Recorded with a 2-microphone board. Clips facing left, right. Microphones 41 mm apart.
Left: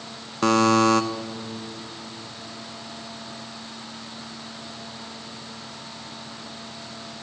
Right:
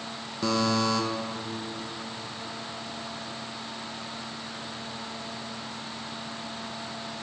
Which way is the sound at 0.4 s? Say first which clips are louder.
Left 8 dB; 60° left (ahead or behind).